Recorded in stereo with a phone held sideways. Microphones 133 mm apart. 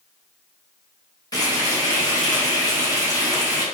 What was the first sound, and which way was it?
Frying, 30° left (ahead or behind).